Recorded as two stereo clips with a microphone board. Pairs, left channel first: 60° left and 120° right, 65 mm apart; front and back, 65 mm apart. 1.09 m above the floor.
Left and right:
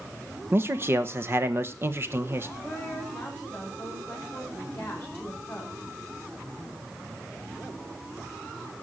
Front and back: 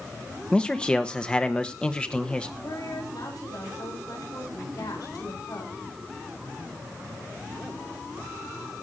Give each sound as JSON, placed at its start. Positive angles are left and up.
{"t": 0.5, "sound": "a man speaking", "azimuth_deg": -70, "distance_m": 1.3}
{"t": 2.6, "sound": "a woman speaking", "azimuth_deg": -5, "distance_m": 9.5}